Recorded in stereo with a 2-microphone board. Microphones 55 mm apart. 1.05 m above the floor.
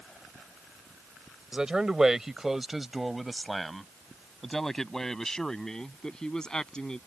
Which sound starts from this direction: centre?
A man speaking, at 1.5 s.